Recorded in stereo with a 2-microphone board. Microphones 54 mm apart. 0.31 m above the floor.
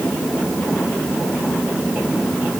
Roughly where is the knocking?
No knocking in this recording.